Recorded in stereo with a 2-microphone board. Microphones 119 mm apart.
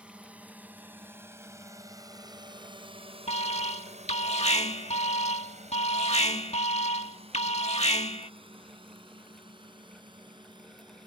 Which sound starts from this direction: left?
An alarm, at 3.3 s.